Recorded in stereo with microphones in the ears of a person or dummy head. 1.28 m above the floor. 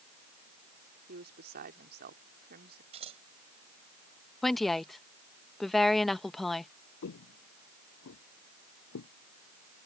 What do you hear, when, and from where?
1.1 s a woman speaking: 50° right (ahead or behind)
2.9 s scissors: 30° right (ahead or behind)
4.4 s a woman speaking: 5° left (ahead or behind)
7.0 s footsteps: 60° left (ahead or behind); by 9.1 s 70° left (ahead or behind)